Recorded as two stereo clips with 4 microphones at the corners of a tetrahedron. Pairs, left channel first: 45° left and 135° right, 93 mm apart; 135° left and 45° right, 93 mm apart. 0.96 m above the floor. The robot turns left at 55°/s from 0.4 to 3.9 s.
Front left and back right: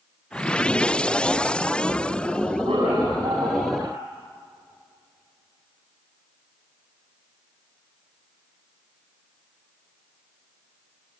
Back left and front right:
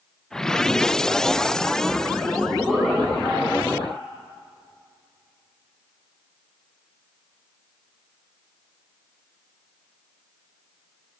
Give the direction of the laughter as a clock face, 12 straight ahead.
4 o'clock.